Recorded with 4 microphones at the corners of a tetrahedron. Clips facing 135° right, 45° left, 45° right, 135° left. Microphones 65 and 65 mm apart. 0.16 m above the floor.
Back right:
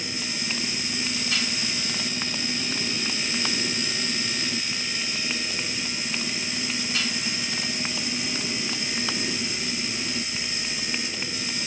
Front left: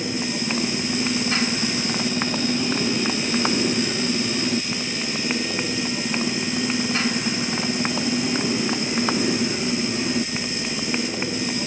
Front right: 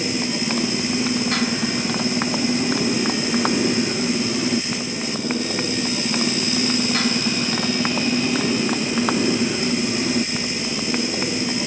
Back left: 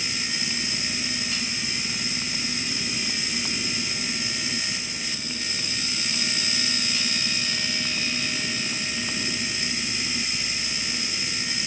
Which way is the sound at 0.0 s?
10° right.